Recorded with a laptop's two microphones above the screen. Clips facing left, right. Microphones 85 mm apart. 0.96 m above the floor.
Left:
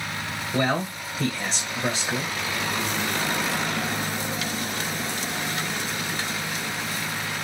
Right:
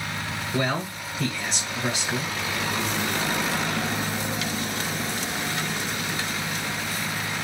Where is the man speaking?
20° left (ahead or behind), 1.1 m.